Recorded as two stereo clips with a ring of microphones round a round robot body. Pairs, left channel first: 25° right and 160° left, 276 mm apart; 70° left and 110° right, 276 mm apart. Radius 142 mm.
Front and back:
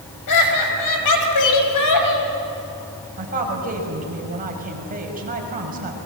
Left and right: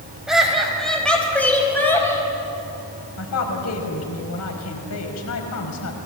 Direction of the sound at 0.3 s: 25° right.